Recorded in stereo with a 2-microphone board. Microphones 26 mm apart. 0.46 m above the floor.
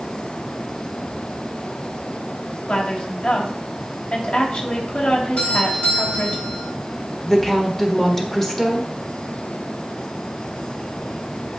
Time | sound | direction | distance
2.7 | a woman speaking | 60° left (ahead or behind) | 3 m
5.4 | a doorbell | 60° left (ahead or behind) | 4 m
7.2 | a woman speaking | 15° left (ahead or behind) | 1.3 m